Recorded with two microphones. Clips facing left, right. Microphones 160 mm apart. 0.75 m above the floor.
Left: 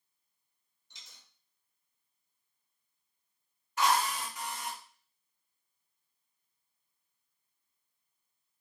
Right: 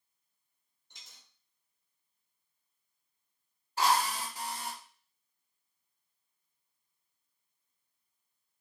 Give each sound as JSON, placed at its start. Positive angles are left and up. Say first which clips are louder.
{"t": 0.9, "sound": "a dropped coin", "louder": "even", "side_deg": -60, "distance_m": 0.8}
{"t": 3.8, "sound": "a drill", "louder": "even", "side_deg": -35, "distance_m": 0.7}